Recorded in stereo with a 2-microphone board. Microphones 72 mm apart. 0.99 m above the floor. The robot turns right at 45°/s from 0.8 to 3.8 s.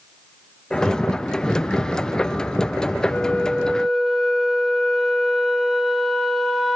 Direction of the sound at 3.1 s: 150° left.